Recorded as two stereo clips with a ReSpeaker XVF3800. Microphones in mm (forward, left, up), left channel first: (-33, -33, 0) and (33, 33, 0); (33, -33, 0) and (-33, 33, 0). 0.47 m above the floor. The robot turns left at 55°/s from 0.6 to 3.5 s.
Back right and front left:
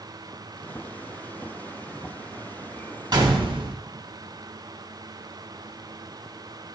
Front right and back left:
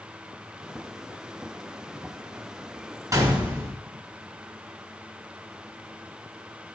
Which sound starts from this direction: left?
A gunshot, at 3.1 s.